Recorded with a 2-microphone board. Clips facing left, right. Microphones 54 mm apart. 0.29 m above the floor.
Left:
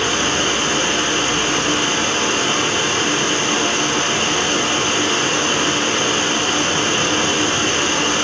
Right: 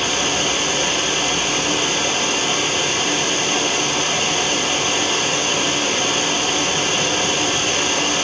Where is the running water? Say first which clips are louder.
Left 2 dB; 35° left (ahead or behind), 1.2 m.